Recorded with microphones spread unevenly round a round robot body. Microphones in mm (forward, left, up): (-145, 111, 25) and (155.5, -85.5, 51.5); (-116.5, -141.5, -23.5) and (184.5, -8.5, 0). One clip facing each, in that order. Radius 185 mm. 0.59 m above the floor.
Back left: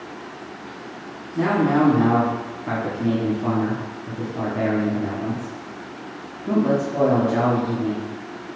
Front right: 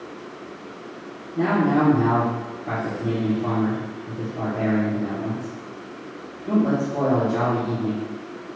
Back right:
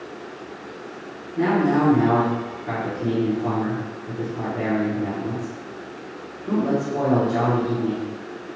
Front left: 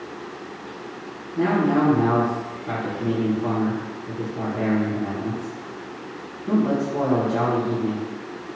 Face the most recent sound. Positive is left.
turn(degrees=105)